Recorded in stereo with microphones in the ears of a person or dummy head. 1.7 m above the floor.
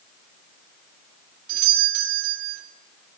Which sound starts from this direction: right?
A doorbell, at 1.5 s.